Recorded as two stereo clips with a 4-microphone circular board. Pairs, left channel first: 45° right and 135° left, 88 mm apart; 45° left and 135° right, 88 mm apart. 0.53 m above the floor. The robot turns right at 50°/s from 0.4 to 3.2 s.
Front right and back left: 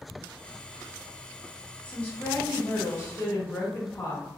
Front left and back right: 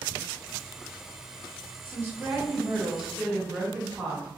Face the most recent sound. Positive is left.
turn(degrees=-45)